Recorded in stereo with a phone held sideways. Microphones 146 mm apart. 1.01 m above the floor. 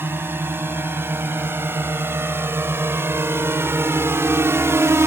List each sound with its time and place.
0.0 s a drone: 15° right (ahead or behind); by 5.1 s 20° right (ahead or behind)